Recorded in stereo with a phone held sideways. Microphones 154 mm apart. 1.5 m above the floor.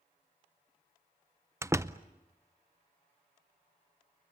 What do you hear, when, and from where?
1.6 s a door slam: 20° right (ahead or behind), 0.6 m